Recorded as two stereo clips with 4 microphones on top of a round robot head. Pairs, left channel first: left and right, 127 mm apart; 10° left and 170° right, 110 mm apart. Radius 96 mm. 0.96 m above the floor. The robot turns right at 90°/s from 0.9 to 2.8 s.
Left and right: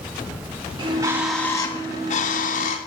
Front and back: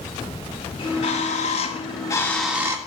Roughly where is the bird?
Ahead right.